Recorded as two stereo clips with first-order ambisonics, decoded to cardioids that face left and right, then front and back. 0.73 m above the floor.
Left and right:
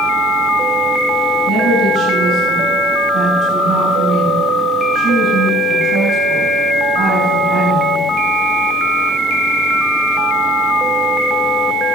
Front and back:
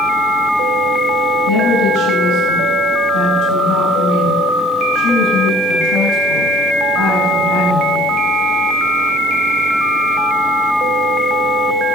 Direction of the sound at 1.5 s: 30° right.